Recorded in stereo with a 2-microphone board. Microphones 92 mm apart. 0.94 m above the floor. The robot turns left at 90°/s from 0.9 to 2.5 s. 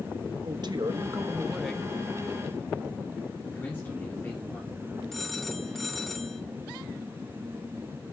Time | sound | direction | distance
0.4 | a man speaking | 115° right | 1.2 m
3.4 | a man speaking | 20° left (ahead or behind) | 2.5 m
5.1 | a phone ringing | 5° left (ahead or behind) | 1.4 m